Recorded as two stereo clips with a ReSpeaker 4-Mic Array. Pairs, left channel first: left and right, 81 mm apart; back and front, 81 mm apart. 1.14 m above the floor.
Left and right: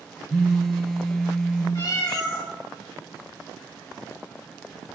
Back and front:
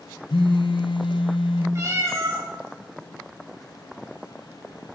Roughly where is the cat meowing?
Ahead left.